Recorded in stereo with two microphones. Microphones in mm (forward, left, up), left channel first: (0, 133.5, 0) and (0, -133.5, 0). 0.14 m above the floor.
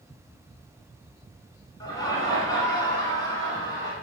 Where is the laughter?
15° left (ahead or behind), 1.3 m.